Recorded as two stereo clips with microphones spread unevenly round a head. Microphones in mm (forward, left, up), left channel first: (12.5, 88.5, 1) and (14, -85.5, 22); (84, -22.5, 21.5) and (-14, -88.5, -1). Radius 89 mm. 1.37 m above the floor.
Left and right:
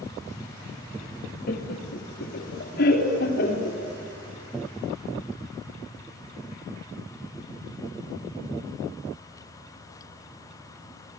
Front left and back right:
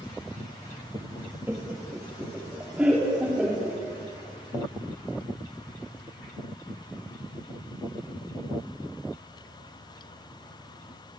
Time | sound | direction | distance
1.5 | laughter | 130° left | 1.8 m